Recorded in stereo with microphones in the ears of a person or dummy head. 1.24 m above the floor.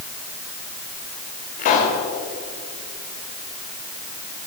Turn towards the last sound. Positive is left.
turn(degrees=45)  # may be behind; listen again after turning